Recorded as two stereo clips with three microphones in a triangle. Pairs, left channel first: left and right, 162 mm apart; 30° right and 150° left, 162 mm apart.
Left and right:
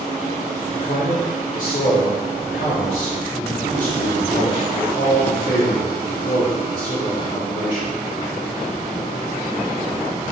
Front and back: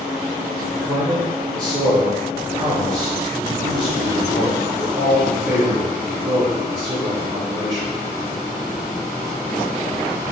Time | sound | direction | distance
0.7 | a man speaking | 90° left | 1.0 m